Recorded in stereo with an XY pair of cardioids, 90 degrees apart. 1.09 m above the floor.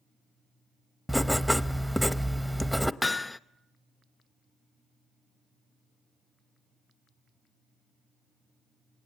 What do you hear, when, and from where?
1.1 s writing: straight ahead, 0.7 m
3.0 s hammering: 15° left, 0.6 m